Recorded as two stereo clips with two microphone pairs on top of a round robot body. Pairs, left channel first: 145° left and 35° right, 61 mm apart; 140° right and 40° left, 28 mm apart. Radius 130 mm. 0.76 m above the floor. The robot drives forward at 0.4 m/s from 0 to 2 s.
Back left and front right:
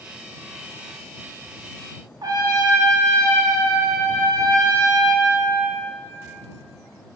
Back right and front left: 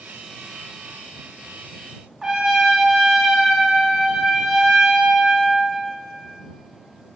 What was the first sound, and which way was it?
A trumpet, 40° right.